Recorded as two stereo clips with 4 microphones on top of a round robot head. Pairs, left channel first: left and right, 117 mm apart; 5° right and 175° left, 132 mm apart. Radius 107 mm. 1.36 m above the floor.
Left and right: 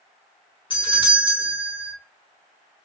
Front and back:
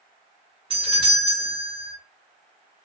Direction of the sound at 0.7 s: 135° left.